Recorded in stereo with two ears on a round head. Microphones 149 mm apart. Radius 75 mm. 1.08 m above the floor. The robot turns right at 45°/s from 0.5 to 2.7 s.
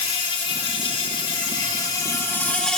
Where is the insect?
70° left, 0.7 m; by 2.8 s 170° left, 0.7 m.